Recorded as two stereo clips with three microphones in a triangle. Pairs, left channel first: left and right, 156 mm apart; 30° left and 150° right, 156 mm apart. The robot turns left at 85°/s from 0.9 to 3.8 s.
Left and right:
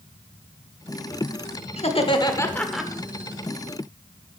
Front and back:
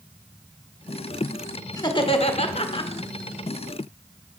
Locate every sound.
1.8 s laughter: 85° left, 0.9 m; by 2.9 s 10° right, 0.9 m